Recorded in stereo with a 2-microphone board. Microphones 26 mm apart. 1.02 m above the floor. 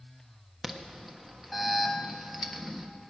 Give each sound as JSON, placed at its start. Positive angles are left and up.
{"t": 0.6, "sound": "an alarm", "side_deg": 0, "distance_m": 1.2}